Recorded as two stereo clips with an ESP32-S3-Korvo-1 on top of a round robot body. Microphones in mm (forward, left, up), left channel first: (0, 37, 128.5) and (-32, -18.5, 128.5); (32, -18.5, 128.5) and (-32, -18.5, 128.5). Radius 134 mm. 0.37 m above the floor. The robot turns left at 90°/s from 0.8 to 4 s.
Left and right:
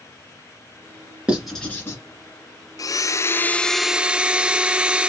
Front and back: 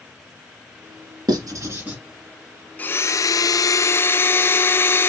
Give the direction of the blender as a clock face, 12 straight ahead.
10 o'clock.